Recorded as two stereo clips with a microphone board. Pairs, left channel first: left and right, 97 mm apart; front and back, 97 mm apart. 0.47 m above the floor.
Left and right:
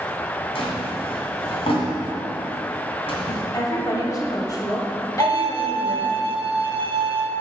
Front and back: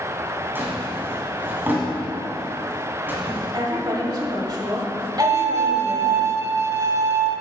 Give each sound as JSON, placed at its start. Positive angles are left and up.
{"t": 0.6, "sound": "a drawer", "azimuth_deg": 110, "distance_m": 2.5}
{"t": 3.5, "sound": "a woman speaking", "azimuth_deg": 140, "distance_m": 1.7}
{"t": 5.2, "sound": "a violin", "azimuth_deg": -120, "distance_m": 0.7}